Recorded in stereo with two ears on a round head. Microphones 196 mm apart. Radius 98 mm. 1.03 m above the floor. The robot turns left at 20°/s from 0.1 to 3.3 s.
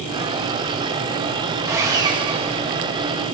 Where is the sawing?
15° right (ahead or behind), 1.6 m; by 2.6 s 30° right (ahead or behind), 1.6 m.